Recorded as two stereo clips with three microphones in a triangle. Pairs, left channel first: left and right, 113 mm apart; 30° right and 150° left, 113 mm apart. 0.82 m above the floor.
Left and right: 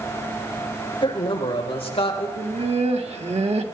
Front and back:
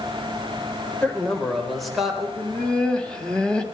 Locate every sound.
1.0 s a man speaking: 50° left, 3 m; by 2.3 s 65° left, 3.5 m
2.4 s laughter: 115° right, 1.8 m